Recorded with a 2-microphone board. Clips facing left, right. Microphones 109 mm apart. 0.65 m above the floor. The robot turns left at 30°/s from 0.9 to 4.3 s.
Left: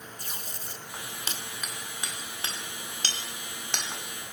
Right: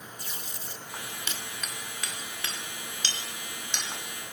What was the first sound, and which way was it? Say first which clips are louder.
Tape being pulled: even; 45° left (ahead or behind).